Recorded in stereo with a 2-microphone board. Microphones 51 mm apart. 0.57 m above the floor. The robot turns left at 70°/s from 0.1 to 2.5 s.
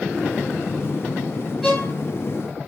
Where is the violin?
10° right (ahead or behind), 2 m; by 1.9 s 5° left (ahead or behind), 2 m.